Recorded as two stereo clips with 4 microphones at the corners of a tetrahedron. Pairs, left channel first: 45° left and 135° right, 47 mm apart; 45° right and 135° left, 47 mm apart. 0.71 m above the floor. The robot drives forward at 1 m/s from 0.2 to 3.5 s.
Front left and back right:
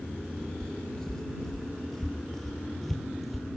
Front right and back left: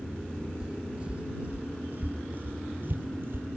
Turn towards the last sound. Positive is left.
turn(degrees=135)